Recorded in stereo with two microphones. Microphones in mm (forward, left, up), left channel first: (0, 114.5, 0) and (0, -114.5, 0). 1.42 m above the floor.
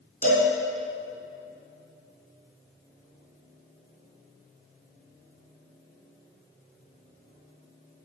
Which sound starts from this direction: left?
A cowbell, at 0.2 s.